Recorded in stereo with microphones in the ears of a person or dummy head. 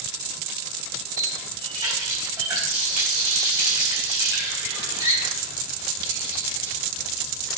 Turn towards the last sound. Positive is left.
turn(degrees=-25)  # may be behind; listen again after turning